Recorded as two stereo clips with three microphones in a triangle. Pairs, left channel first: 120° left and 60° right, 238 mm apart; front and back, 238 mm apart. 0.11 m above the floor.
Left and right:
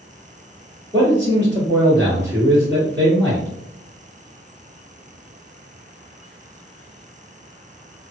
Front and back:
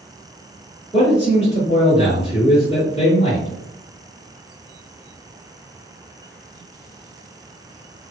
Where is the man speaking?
165° right, 1.7 m.